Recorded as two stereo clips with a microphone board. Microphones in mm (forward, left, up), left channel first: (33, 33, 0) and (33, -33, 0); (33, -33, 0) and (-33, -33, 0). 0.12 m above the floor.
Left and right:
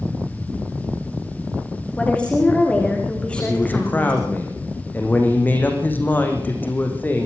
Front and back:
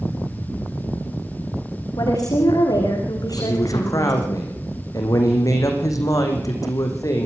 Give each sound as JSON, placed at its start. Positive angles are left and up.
{"t": 2.0, "sound": "a woman speaking", "azimuth_deg": 15, "distance_m": 8.0}
{"t": 3.4, "sound": "a man speaking", "azimuth_deg": 30, "distance_m": 5.5}